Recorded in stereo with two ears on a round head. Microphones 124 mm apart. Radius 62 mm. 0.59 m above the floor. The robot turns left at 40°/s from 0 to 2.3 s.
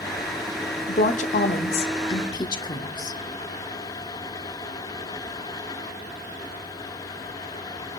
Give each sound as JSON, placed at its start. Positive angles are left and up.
{"t": 0.9, "sound": "a woman speaking", "azimuth_deg": 95, "distance_m": 1.4}